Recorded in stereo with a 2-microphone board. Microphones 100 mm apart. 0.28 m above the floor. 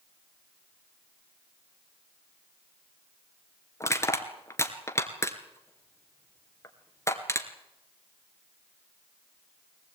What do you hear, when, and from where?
3.8 s crushing: 30° left (ahead or behind), 2 m